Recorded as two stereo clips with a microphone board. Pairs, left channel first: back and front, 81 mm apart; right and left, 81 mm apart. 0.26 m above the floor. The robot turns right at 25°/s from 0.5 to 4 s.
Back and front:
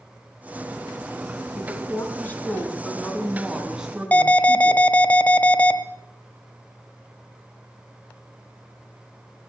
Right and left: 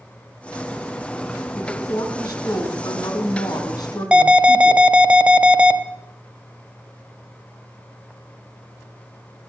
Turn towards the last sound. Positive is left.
turn(degrees=145)